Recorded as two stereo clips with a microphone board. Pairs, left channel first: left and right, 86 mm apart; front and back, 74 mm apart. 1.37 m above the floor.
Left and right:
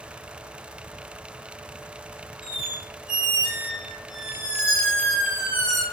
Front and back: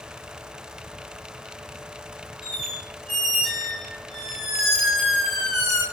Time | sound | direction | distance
2.4 | a squeak | 85° left | 1.7 m